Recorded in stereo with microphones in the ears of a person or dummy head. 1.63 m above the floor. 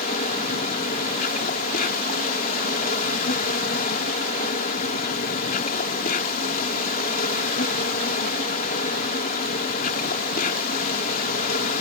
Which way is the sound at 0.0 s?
50° left (ahead or behind).